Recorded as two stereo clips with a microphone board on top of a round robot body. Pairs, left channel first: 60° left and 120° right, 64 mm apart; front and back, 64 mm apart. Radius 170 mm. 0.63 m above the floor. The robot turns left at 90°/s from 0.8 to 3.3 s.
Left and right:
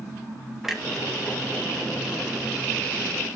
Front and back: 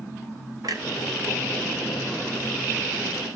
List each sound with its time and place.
0.6 s a clunk: 155° left, 1.8 m; by 0.8 s 150° left, 1.8 m